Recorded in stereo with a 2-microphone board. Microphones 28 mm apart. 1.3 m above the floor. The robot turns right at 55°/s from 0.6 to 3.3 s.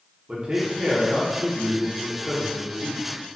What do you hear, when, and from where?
0.3 s a man speaking: 35° right, 1.0 m; by 3.0 s 95° left, 1.0 m